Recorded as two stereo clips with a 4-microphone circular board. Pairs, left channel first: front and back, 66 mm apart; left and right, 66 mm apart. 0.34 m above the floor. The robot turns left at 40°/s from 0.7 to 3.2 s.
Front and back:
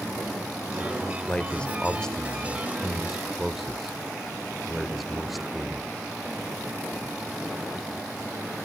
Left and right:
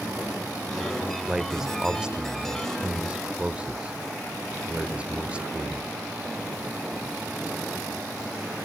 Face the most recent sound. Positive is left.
turn(degrees=-90)